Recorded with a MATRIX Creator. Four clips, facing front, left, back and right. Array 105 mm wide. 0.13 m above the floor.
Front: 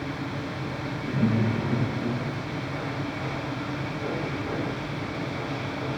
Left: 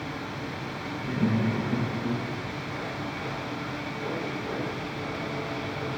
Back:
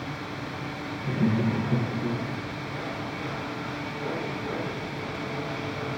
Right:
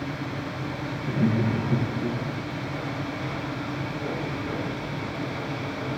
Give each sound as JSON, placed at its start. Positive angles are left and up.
{"t": 1.0, "sound": "laughter", "azimuth_deg": -120, "distance_m": 4.5}